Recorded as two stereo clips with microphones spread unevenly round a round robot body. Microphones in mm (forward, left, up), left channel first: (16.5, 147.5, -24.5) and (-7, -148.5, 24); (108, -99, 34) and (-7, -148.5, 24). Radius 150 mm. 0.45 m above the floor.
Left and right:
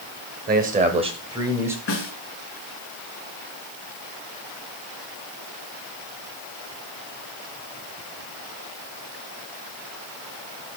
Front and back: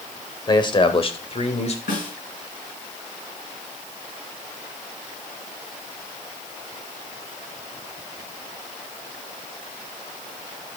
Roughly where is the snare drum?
Ahead left.